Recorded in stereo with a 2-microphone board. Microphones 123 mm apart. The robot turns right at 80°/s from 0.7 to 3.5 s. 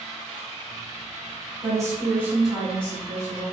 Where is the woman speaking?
25° right (ahead or behind), 1.3 m; by 3.4 s 25° left (ahead or behind), 1.3 m.